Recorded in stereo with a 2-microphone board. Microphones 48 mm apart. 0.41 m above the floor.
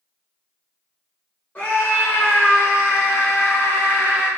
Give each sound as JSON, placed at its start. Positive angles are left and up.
{"t": 1.6, "sound": "a scream", "side_deg": 35, "distance_m": 1.8}